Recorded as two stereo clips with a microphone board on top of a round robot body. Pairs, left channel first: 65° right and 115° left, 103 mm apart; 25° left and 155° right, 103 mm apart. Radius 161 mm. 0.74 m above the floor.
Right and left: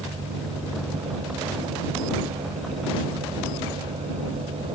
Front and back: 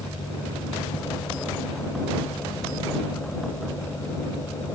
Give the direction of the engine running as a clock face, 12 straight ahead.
9 o'clock.